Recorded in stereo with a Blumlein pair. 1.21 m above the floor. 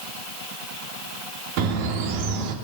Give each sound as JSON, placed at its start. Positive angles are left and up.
{"t": 1.6, "sound": "a bird", "azimuth_deg": -45, "distance_m": 1.9}